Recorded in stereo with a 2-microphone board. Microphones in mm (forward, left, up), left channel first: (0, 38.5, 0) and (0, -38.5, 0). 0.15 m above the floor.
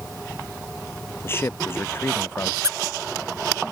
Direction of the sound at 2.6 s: 40° right (ahead or behind).